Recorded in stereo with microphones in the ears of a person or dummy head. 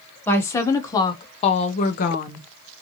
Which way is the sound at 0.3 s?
15° left (ahead or behind).